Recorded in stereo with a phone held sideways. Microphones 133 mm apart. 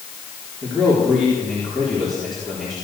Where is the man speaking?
Centre (ahead or behind), 4 m.